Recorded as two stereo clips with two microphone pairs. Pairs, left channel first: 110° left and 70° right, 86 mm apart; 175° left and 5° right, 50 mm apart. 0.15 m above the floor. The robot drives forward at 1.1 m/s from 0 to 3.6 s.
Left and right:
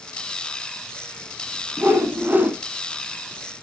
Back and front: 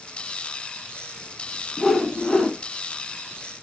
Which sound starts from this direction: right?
A whoosh, at 1.8 s.